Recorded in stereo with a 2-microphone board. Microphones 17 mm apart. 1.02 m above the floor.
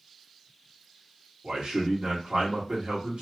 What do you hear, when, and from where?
1.4 s a man speaking: 75° right (ahead or behind), 1.5 m